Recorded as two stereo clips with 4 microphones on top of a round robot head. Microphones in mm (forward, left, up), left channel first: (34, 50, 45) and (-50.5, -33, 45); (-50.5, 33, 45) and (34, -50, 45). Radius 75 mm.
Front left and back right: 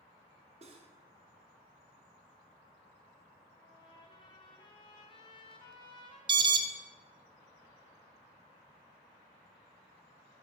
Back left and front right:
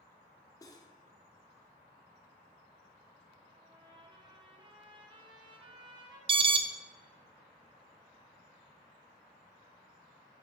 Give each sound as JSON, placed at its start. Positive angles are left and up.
{"t": 0.6, "sound": "cutlery clinking", "azimuth_deg": -165, "distance_m": 0.8}
{"t": 3.5, "sound": "a trumpet", "azimuth_deg": 0, "distance_m": 1.2}
{"t": 6.3, "sound": "an alarm", "azimuth_deg": -85, "distance_m": 0.5}